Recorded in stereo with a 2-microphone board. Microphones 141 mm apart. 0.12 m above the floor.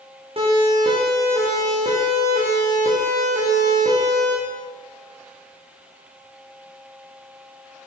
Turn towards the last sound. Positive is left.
turn(degrees=-55)  # may be behind; listen again after turning